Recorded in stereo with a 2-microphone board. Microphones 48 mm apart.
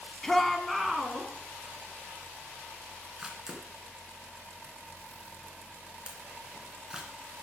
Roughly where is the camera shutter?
Centre.